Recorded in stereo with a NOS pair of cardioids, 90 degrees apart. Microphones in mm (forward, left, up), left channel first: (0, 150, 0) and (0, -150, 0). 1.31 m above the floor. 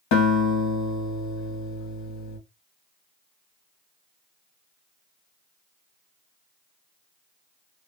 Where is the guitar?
65° left, 1.0 m.